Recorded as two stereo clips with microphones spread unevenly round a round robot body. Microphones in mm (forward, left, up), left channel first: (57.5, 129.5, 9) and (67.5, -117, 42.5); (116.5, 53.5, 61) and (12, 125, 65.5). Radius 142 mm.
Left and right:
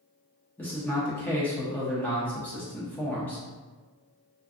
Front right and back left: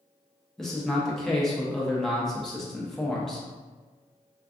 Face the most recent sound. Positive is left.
turn(degrees=45)